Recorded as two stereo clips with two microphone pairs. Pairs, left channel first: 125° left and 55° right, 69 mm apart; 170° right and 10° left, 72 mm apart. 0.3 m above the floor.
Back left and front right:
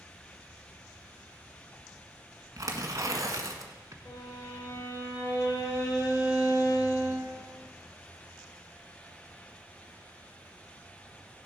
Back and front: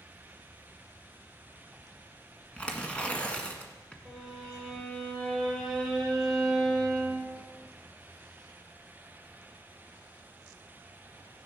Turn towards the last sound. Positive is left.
turn(degrees=105)